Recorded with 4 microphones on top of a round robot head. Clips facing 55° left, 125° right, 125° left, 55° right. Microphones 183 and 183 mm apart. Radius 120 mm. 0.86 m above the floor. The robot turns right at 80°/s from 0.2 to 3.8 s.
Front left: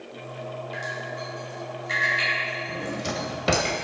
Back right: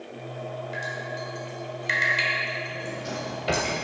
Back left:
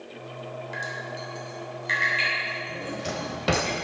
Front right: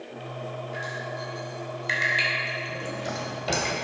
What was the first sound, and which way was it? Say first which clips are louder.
Dripping: even, front right 2 dB; 145° left.